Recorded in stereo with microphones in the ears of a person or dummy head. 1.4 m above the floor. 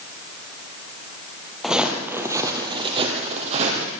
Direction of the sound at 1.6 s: 5° left (ahead or behind).